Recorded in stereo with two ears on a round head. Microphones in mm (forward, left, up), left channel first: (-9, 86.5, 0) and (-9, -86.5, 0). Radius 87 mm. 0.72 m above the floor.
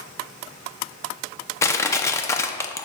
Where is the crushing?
15° left (ahead or behind), 0.5 m.